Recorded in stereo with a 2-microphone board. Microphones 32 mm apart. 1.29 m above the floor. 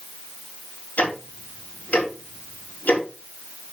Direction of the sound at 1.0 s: 65° left (ahead or behind).